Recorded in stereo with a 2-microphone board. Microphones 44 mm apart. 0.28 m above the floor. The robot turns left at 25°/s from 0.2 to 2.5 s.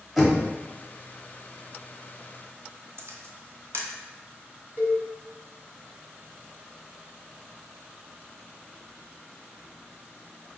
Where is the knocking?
Centre (ahead or behind), 0.9 m; by 0.5 s 5° right (ahead or behind), 0.9 m.